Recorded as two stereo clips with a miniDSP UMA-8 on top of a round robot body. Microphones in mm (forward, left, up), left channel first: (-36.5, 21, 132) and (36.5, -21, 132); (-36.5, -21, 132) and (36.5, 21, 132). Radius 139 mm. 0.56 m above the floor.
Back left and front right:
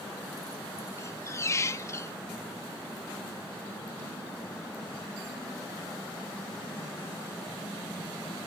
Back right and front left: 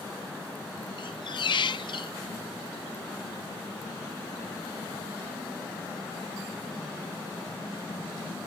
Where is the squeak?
155° right, 0.6 m.